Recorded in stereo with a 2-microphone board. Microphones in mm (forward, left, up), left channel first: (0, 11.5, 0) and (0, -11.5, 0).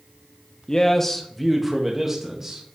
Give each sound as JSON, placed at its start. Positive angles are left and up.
{"t": 0.7, "sound": "a man speaking", "side_deg": 35, "distance_m": 0.7}